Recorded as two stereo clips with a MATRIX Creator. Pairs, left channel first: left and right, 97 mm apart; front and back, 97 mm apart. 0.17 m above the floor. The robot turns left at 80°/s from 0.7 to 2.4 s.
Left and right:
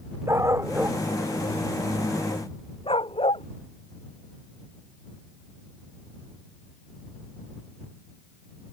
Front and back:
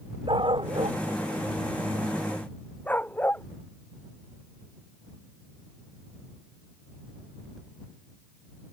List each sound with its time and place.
0.3 s a dog barking: 150° right; by 3.5 s 75° left